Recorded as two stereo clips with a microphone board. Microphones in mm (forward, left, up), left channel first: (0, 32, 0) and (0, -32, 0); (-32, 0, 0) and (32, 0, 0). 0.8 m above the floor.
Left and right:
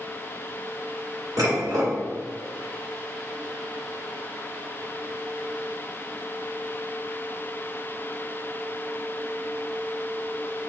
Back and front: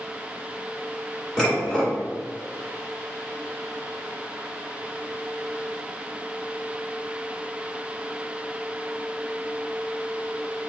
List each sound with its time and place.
1.4 s dishes clattering: 100° right, 1.8 m